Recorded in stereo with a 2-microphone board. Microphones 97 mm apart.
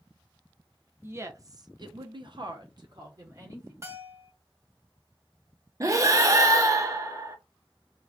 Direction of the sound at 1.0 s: 25° right (ahead or behind).